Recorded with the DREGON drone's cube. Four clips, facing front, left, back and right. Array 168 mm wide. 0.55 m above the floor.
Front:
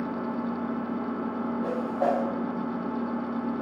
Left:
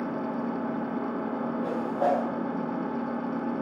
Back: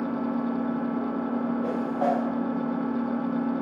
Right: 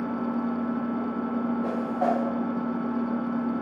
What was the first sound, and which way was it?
An engine running, 140° left.